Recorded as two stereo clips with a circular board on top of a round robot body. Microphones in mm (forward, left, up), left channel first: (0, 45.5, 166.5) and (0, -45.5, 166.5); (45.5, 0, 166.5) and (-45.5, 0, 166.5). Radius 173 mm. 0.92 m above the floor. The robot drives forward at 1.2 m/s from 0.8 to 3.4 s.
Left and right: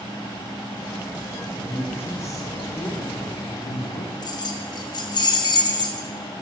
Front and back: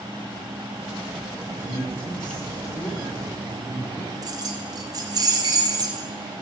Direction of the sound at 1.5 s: 20° left.